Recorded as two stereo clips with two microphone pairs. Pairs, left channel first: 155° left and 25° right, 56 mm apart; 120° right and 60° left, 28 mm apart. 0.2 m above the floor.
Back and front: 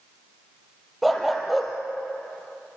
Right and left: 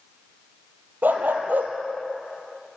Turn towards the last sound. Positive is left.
turn(degrees=65)